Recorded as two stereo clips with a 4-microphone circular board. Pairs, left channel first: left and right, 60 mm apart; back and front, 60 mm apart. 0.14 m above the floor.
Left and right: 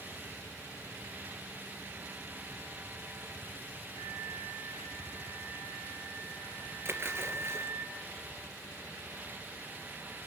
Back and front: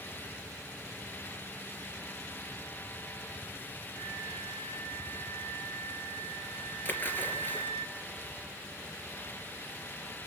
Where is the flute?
95° left, 2.5 m.